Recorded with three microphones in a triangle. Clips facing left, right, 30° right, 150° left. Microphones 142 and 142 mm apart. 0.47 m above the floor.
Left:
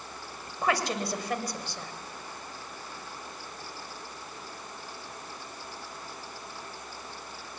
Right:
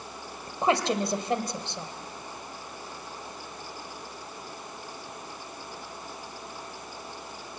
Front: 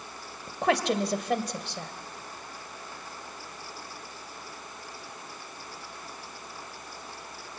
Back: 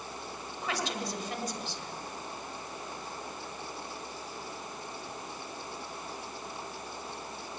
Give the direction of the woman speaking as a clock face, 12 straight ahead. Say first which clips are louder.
Right 4 dB, front 10 dB; 1 o'clock.